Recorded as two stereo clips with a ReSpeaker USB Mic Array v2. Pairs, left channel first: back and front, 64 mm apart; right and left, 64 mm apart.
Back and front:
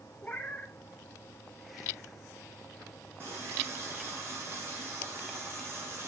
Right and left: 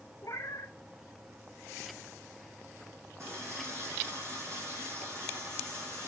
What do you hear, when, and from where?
0.2 s a cat meowing: 125° right, 1.4 m
3.2 s a running tap: 50° left, 4 m